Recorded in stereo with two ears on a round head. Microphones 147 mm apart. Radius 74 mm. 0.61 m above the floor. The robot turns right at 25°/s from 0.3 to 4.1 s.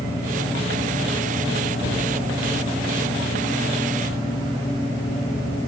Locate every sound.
1.8 s a cupboard door: 30° left (ahead or behind), 3.5 m; by 2.1 s 40° left (ahead or behind), 3.5 m